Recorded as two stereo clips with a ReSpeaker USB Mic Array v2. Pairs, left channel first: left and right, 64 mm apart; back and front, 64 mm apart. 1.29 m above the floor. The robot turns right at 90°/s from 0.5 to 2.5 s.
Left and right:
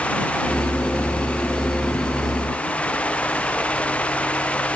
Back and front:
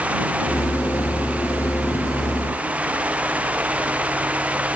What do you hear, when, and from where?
Only background noise.